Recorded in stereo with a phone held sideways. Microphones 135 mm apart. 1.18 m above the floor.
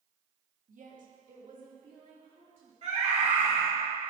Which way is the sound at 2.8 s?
55° right (ahead or behind).